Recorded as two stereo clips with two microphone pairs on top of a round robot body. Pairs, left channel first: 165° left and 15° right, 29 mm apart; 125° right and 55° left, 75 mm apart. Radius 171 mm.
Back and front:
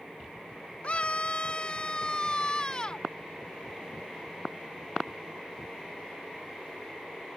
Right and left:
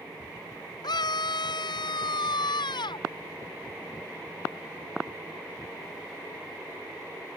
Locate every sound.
0.8 s a scream: 145° right; by 3.1 s 130° right